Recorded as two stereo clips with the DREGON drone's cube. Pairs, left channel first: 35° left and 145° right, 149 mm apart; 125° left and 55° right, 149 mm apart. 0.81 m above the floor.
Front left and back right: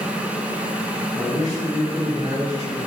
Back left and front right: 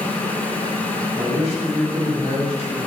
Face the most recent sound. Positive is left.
turn(degrees=-105)